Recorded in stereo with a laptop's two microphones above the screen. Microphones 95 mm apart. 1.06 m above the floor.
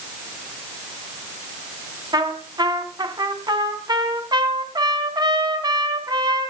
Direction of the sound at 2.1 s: 45° right (ahead or behind).